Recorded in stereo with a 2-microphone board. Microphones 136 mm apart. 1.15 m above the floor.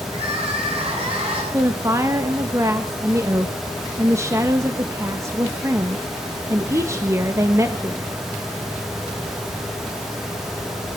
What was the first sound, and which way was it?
Crying, 45° right (ahead or behind).